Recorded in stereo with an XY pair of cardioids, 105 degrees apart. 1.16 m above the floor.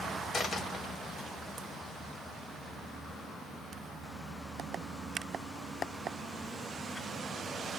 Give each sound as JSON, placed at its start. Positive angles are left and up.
{"t": 0.3, "sound": "a dropped coin", "azimuth_deg": 55, "distance_m": 1.3}